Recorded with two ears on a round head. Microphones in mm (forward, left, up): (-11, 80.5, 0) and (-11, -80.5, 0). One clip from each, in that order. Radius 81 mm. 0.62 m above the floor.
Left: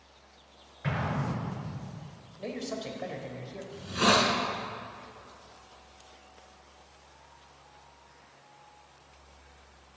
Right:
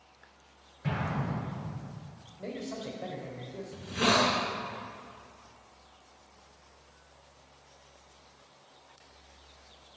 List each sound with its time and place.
0.8 s an explosion: 60° left (ahead or behind), 6 m
2.4 s a man speaking: 70° left (ahead or behind), 3 m
3.7 s a hiss: 20° left (ahead or behind), 3.5 m